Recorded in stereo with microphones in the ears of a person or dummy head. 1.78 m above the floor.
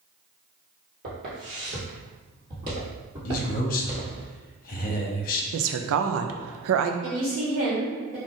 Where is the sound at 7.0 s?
35° right (ahead or behind), 1.8 m.